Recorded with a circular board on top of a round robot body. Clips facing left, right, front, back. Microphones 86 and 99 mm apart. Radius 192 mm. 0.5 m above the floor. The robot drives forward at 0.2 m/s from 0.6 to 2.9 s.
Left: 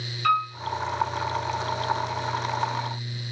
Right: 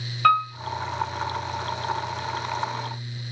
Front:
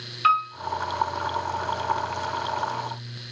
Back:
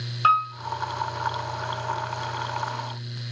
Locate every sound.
0.2 s a piano: 125° right, 1.6 m